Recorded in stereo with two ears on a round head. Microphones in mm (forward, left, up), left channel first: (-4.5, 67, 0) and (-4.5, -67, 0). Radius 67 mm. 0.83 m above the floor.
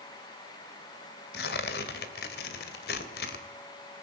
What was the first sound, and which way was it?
Tearing paper, 75° left (ahead or behind).